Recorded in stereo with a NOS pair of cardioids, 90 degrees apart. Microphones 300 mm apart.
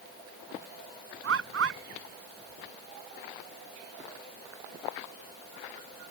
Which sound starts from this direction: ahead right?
A bird, at 1.2 s.